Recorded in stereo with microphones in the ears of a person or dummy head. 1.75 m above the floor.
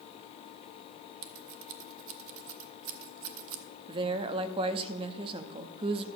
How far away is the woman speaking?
About 0.7 m.